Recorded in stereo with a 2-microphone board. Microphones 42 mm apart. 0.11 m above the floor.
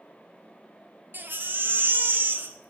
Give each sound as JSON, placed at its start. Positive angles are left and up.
{"t": 1.1, "sound": "a baby crying", "side_deg": -55, "distance_m": 0.5}